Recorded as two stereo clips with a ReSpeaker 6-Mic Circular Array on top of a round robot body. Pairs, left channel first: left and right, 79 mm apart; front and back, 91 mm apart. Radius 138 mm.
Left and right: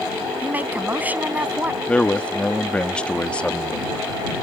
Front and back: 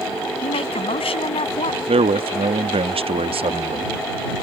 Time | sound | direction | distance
0.4 | a woman speaking | 20° right | ?
1.9 | a man speaking | 165° left | ?